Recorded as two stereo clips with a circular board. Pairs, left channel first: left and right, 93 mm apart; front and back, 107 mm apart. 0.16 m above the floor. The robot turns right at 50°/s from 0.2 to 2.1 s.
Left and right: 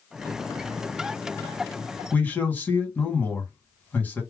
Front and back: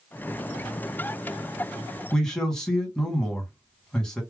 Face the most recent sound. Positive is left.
turn(degrees=70)